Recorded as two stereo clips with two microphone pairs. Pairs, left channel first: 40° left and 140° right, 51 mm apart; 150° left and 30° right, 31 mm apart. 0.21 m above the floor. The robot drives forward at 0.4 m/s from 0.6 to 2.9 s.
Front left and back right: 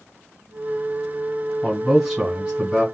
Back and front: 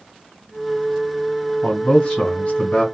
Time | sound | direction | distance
1.6 | a man speaking | 150° left | 1.8 m